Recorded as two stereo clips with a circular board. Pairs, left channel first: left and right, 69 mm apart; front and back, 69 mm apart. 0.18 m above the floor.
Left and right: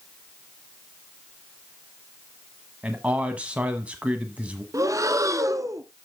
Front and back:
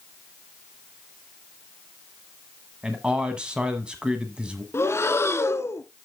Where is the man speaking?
125° right, 1.1 m.